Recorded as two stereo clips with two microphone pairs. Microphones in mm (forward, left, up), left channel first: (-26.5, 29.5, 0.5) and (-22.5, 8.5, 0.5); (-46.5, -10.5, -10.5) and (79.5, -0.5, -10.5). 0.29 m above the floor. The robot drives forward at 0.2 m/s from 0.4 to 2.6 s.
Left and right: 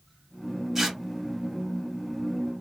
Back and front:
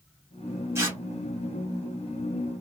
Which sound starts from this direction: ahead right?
Tearing paper, at 0.8 s.